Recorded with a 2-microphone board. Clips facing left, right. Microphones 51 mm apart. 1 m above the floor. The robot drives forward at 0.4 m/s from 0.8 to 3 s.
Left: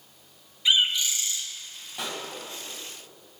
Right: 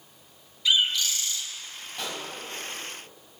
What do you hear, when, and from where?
0.7 s a bird: 20° left (ahead or behind), 0.8 m; by 1.4 s 15° left (ahead or behind), 1.0 m
2.0 s a pop: 10° left (ahead or behind), 1.7 m